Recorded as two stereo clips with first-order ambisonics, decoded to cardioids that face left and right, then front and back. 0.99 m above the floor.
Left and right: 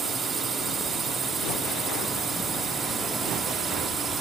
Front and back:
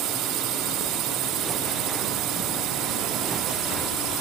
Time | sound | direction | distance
0.0 | a drone | 155° right | ?